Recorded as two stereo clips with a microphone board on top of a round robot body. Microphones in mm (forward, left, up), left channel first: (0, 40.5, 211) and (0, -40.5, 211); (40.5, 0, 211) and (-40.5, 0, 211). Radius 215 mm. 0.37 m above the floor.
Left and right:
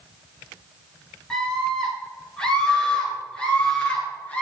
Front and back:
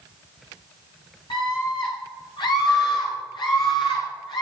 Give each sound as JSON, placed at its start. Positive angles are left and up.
{"t": 1.3, "sound": "a scream", "azimuth_deg": 10, "distance_m": 9.0}